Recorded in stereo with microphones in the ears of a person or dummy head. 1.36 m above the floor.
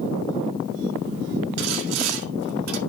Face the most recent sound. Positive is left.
turn(degrees=-80)